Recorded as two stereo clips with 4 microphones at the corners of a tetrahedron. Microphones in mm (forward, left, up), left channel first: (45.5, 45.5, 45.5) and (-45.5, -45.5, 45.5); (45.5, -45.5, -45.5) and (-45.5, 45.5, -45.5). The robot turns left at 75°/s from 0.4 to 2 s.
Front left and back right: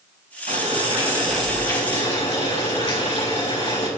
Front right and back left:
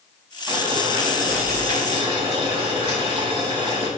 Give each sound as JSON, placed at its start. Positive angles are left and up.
{"t": 0.5, "sound": "boiling", "azimuth_deg": -160, "distance_m": 5.0}